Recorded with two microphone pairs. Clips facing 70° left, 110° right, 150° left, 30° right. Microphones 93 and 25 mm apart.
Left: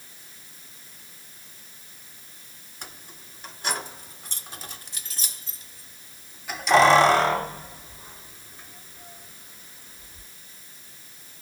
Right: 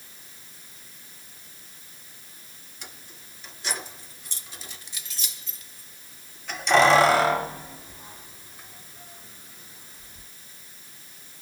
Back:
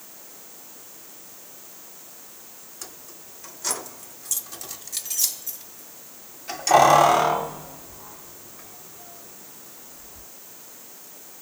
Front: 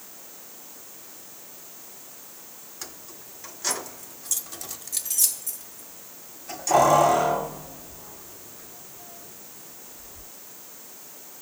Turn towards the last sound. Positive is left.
turn(degrees=-175)